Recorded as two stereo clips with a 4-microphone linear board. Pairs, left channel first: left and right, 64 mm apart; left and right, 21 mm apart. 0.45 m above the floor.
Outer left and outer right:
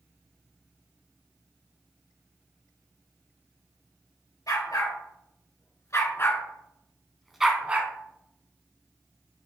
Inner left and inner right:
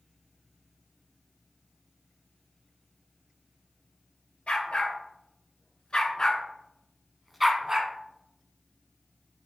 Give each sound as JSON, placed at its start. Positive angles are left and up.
{"t": 4.5, "sound": "a dog barking", "side_deg": 65, "distance_m": 2.0}